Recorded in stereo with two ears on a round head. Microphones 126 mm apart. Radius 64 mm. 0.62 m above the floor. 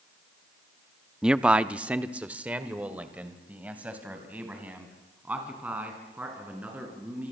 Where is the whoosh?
No whoosh in this recording.